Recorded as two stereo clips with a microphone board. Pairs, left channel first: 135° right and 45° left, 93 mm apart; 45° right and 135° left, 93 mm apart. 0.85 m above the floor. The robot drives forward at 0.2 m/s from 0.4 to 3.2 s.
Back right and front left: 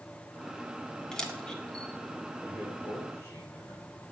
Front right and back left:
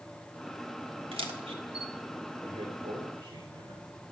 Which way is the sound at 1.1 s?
140° left.